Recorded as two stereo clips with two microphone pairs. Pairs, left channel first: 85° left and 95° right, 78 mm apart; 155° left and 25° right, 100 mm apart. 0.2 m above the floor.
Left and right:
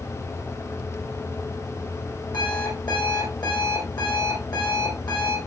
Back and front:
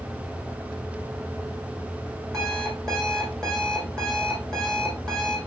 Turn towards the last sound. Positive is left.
turn(degrees=75)